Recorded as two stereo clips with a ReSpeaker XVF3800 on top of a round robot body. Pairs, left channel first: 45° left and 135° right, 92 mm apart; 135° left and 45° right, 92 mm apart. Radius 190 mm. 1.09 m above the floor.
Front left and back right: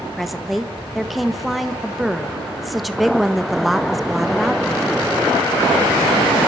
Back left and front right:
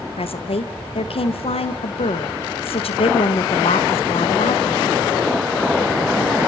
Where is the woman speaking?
135° left, 1.6 m.